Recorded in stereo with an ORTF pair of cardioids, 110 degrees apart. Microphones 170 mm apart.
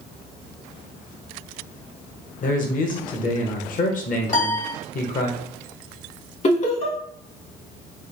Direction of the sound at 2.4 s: 50° left.